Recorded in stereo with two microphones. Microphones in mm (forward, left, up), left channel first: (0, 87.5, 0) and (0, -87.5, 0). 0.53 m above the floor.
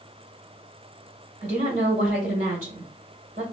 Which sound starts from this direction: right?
A woman speaking, at 1.4 s.